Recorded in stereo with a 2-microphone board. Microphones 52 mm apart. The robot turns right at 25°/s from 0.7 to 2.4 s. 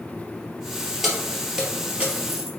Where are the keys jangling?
Centre (ahead or behind), 2.5 m; by 2.5 s 30° right (ahead or behind), 2.5 m.